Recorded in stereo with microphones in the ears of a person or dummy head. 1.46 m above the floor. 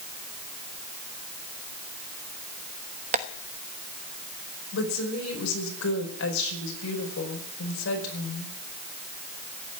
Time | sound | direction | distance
3.1 | tapping | 40° right (ahead or behind) | 1.1 m
4.7 | a woman speaking | 80° left | 5 m